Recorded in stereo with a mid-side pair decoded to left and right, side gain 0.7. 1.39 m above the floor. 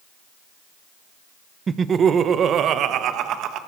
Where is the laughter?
25° right, 1.0 m; by 3.6 s 55° right, 1.8 m.